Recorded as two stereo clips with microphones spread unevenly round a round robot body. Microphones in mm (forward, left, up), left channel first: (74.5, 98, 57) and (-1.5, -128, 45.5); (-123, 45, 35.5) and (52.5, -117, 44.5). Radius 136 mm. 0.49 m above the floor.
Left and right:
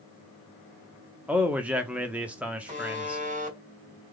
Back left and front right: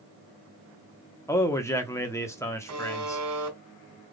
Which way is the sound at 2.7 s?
50° right.